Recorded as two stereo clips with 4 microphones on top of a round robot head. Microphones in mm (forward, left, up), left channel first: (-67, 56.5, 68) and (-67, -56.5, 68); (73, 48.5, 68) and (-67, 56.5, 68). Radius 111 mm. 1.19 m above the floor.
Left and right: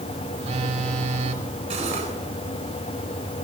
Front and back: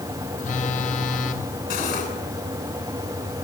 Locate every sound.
0.4 s a phone buzzing: 45° right, 2.5 m
1.7 s cutlery clinking: 40° right, 9 m